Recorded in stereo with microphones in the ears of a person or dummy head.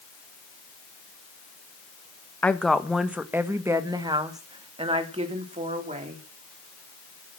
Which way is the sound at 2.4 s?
10° left (ahead or behind).